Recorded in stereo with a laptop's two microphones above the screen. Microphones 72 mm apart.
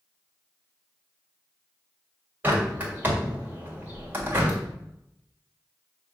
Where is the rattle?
No rattle in this recording.